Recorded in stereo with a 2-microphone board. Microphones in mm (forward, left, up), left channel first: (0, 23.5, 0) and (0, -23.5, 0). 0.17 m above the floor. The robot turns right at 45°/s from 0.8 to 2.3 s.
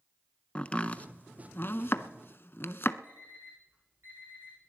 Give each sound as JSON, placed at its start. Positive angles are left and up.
{"t": 0.6, "sound": "chopping", "side_deg": 30, "distance_m": 0.5}
{"t": 3.0, "sound": "an alarm clock", "side_deg": -60, "distance_m": 9.5}